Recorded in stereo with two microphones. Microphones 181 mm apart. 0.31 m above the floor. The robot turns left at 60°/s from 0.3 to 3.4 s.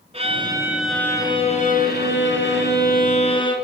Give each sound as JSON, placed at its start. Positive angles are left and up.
{"t": 0.1, "sound": "a violin", "azimuth_deg": -145, "distance_m": 1.0}